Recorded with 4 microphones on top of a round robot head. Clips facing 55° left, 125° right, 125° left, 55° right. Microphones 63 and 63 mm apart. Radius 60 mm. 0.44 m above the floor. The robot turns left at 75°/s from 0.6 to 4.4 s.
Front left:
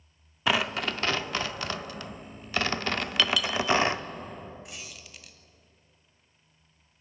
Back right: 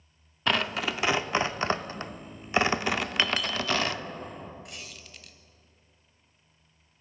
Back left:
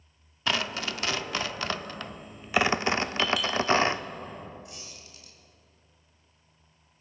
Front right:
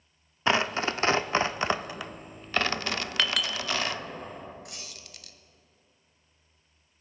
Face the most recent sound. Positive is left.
turn(degrees=-30)